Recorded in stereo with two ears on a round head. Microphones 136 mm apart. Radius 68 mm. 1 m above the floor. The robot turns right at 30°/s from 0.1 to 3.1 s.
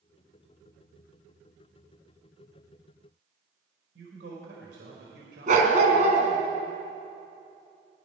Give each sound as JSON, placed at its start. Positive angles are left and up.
{"t": 4.0, "sound": "a man speaking", "side_deg": -85, "distance_m": 5.0}
{"t": 5.5, "sound": "a dog barking", "side_deg": -55, "distance_m": 3.5}